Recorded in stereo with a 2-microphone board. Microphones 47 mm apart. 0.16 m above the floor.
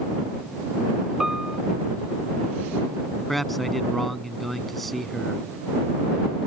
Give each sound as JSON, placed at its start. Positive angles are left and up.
{"t": 1.2, "sound": "a piano", "side_deg": -10}
{"t": 3.3, "sound": "a man speaking", "side_deg": 5}